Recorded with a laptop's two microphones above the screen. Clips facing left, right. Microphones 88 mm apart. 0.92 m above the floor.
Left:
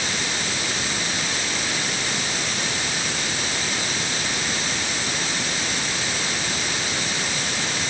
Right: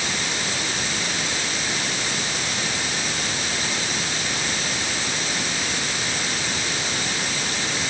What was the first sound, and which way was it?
Only background noise.